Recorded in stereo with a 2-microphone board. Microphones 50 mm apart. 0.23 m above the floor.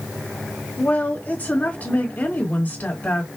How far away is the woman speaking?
About 1.9 m.